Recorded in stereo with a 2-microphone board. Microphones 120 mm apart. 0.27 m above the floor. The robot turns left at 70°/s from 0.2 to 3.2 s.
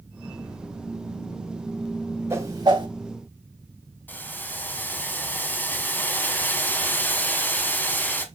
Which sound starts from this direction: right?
A whoosh, at 2.3 s.